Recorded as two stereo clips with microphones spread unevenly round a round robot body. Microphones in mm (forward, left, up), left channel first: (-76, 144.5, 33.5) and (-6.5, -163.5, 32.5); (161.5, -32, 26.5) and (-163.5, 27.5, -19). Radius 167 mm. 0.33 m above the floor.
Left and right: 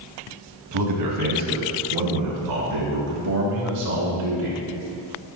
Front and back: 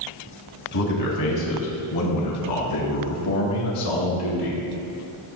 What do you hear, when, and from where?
0.7 s a man speaking: 50° right, 2 m; by 4.6 s 35° right, 4.5 m